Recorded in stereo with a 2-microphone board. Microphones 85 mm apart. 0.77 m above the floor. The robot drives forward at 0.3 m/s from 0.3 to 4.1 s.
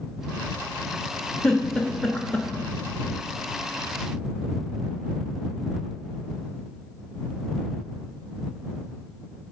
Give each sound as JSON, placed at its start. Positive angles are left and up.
{"t": 1.4, "sound": "a giggle", "side_deg": 10, "distance_m": 1.0}